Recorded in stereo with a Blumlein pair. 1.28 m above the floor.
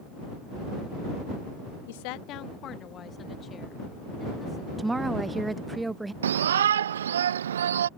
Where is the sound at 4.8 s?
10° right.